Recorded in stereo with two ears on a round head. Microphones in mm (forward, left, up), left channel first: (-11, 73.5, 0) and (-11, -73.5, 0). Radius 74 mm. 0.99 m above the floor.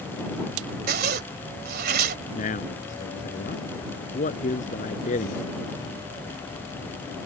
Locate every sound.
0.9 s a zipper: 65° right (ahead or behind)
2.4 s a man speaking: 50° left (ahead or behind)